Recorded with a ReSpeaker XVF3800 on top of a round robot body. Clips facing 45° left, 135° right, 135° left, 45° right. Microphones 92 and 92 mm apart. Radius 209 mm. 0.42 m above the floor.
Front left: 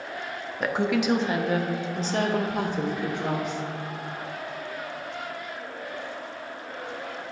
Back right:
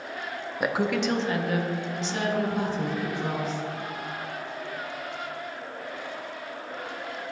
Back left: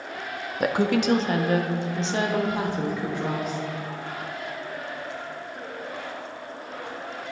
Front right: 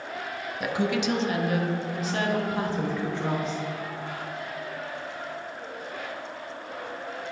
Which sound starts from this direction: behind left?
A woman speaking, at 0.6 s.